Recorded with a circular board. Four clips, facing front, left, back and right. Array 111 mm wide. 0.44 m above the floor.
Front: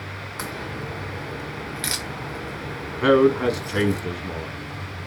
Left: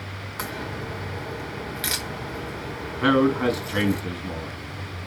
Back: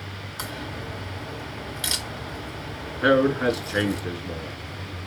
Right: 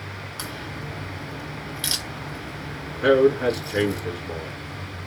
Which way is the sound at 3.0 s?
40° left.